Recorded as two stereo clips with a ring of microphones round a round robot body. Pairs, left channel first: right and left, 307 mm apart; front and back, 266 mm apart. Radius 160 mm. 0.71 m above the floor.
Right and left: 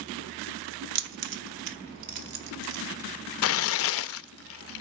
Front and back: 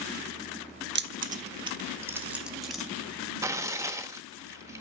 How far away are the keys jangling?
About 1.1 m.